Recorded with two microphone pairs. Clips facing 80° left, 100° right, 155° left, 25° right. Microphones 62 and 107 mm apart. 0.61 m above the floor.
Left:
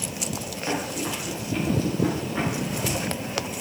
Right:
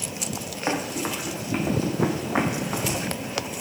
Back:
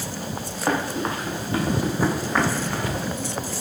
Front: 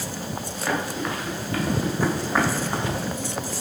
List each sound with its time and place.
0.7 s running footsteps: 145° right, 3.5 m; by 3.0 s 80° right, 1.7 m